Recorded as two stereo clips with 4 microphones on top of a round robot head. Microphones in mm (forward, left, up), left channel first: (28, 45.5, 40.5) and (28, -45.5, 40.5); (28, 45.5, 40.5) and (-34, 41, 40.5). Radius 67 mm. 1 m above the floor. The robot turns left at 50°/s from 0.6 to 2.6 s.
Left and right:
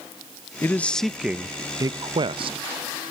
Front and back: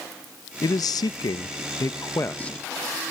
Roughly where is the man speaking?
Ahead left.